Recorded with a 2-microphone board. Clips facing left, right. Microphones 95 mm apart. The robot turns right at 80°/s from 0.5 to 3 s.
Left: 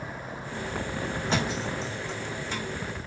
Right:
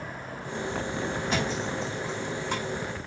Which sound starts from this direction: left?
A thud, at 1.3 s.